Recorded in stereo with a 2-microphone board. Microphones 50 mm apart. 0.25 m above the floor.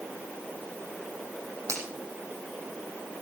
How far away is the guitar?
I don't hear a guitar.